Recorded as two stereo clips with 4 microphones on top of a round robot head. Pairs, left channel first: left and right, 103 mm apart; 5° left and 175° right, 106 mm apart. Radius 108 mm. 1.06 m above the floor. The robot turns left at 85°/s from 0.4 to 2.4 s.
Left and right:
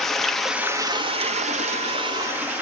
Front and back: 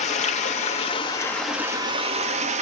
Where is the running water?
5° left, 1.2 m; by 2.6 s 165° right, 1.2 m.